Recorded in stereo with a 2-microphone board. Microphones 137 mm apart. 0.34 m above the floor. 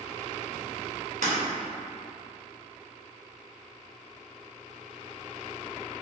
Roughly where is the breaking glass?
Right.